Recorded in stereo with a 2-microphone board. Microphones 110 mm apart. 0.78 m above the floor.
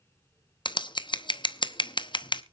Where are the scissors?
45° left (ahead or behind), 0.8 m.